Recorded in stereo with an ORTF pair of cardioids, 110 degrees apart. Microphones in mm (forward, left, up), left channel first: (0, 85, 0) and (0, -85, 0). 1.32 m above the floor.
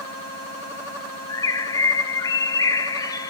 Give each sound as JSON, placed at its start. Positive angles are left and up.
{"t": 1.3, "sound": "a bird", "azimuth_deg": 20, "distance_m": 0.6}